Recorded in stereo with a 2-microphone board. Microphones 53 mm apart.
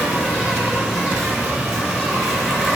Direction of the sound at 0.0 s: 5° left (ahead or behind).